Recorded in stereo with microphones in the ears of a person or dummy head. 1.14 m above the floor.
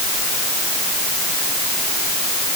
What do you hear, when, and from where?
Only background noise.